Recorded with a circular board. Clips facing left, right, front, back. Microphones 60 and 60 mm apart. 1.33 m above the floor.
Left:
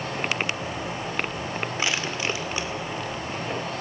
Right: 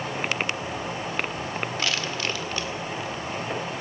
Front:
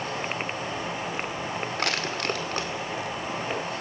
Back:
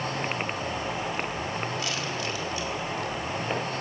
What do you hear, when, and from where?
1.8 s crushing: 20° left, 1.9 m